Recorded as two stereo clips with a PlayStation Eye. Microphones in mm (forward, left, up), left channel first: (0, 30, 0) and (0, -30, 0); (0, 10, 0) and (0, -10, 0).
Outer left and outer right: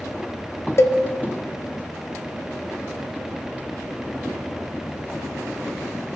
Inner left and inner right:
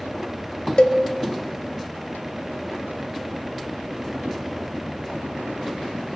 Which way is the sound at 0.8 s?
50° left (ahead or behind).